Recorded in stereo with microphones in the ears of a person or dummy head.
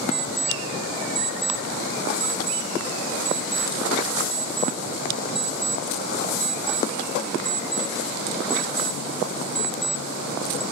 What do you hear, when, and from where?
0.1 s an alarm clock: centre (ahead or behind), 1.7 m